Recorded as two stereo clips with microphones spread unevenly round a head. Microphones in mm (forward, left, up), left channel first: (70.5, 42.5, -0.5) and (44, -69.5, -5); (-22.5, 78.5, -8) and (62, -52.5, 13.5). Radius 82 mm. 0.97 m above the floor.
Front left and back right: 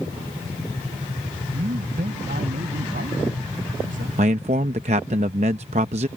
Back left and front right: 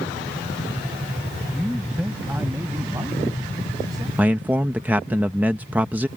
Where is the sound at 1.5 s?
145° right; by 4.1 s 125° right.